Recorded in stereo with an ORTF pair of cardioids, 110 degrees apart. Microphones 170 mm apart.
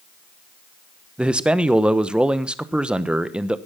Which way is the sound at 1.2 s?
5° right.